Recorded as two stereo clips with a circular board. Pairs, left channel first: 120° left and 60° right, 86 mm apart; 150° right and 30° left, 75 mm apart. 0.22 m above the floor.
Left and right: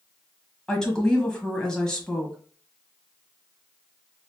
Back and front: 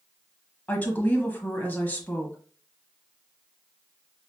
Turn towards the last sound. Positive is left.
turn(degrees=-170)